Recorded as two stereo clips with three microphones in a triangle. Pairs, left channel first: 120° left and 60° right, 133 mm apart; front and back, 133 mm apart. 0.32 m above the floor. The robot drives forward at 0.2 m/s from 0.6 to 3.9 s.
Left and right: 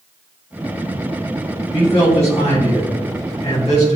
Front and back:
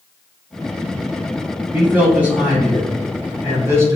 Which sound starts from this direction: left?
A man speaking, at 1.7 s.